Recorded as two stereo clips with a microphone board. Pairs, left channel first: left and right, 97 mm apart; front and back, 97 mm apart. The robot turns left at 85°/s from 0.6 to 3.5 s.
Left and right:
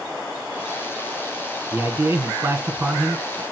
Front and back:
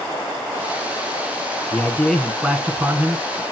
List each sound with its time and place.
1.7 s a man speaking: 40° right, 1.1 m; by 3.4 s 175° left, 1.1 m